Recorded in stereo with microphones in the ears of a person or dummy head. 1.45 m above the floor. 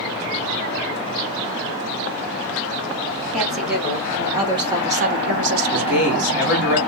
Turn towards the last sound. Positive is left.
turn(degrees=-5)  # may be behind; listen again after turning